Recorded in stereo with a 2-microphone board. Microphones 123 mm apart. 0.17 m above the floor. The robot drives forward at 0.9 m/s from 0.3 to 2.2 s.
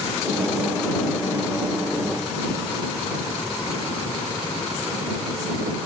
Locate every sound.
Only background noise.